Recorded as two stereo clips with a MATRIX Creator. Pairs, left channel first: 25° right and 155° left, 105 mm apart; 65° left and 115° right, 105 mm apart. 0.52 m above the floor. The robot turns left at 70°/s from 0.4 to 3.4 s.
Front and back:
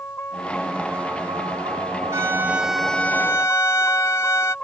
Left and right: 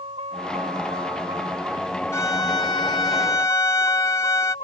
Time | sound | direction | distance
0.0 | a vehicle | 90° right | ?
2.1 | a violin | 115° left | ?